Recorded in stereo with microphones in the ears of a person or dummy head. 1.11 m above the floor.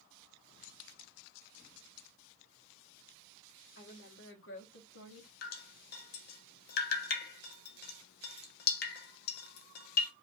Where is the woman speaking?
65° left (ahead or behind), 2.5 m; by 5.3 s 75° left (ahead or behind), 1.8 m.